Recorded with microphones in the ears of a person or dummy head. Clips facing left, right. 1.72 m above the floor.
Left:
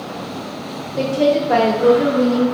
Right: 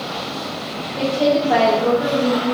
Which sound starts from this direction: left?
A woman speaking, at 1.0 s.